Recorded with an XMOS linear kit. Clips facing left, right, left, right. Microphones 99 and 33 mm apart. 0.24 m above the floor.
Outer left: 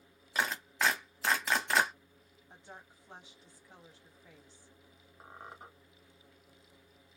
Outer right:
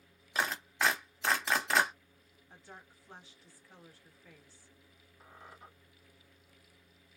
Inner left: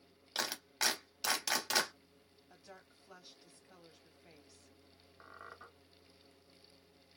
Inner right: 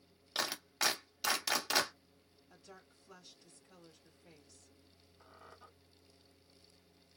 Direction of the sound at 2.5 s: 20° left (ahead or behind).